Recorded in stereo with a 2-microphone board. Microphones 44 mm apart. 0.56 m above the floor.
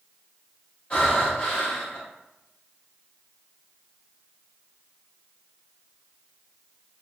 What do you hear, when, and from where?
0.9 s breathing: 25° left (ahead or behind), 1.6 m